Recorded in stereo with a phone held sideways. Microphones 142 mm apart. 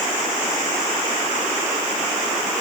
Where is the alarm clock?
No alarm clock in this recording.